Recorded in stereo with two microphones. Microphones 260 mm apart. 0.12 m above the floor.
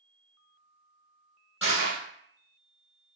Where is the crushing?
55° left (ahead or behind), 1.5 m.